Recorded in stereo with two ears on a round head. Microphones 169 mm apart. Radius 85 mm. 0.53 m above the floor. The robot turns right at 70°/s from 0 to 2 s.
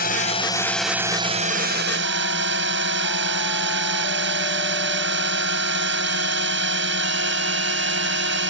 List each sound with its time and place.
0.0 s a drone: 120° left; by 8.5 s 100° right